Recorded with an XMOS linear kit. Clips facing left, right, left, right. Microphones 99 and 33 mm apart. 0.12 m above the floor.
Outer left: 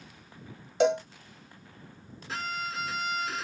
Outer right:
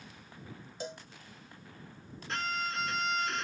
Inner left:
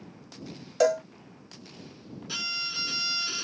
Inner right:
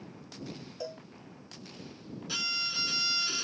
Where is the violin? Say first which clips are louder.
Even, inner left 1 dB; 5° left (ahead or behind).